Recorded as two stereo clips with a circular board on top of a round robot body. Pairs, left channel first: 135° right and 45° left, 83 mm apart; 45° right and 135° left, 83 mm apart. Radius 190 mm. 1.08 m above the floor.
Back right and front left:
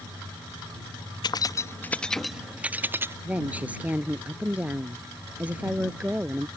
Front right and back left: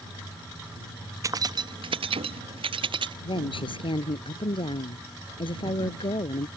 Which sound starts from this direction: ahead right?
A woman speaking, at 3.2 s.